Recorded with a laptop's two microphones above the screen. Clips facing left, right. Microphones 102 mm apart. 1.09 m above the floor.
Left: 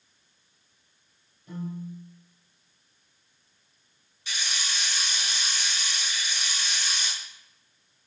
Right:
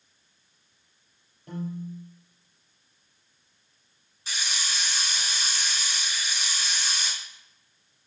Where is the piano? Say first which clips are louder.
Right 1 dB; 60° right (ahead or behind), 4.5 m.